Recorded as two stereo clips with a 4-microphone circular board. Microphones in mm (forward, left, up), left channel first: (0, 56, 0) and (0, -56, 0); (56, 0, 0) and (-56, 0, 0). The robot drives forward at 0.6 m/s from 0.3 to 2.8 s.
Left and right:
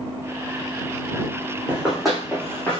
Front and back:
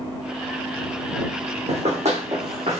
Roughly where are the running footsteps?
Behind.